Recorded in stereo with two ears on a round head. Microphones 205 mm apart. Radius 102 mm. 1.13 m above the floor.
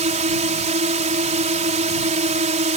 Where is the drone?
30° right (ahead or behind).